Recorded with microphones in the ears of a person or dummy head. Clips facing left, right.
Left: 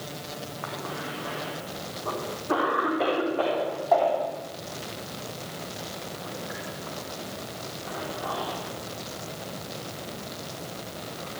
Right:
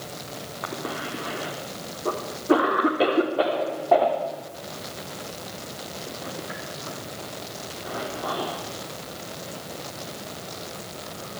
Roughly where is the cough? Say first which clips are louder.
Right 4 dB; right.